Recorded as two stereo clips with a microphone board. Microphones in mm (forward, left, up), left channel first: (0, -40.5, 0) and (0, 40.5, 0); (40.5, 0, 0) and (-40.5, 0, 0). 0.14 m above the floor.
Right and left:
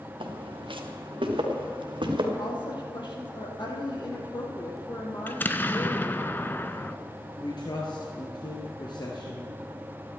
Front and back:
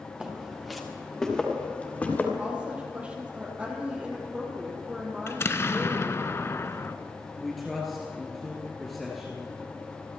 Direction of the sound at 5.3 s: 40° right.